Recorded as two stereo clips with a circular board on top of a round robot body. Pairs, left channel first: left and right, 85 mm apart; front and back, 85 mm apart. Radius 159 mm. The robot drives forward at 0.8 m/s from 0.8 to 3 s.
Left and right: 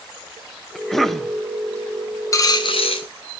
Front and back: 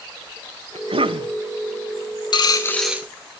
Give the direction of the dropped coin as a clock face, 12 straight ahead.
11 o'clock.